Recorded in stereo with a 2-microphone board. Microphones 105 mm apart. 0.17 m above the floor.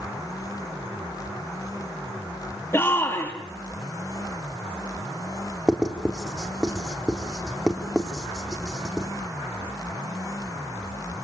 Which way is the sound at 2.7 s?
25° left (ahead or behind).